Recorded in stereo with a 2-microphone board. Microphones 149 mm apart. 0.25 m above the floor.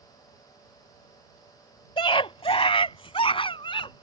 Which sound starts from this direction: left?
A scream, at 2.0 s.